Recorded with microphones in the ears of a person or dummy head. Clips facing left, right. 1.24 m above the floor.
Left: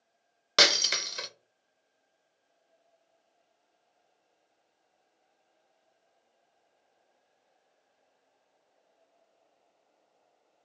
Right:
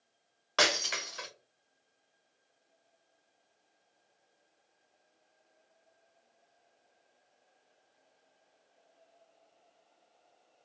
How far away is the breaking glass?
About 0.5 m.